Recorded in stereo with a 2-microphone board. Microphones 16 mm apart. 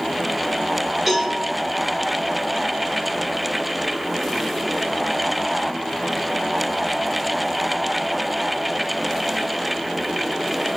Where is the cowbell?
Centre (ahead or behind), 1.2 m.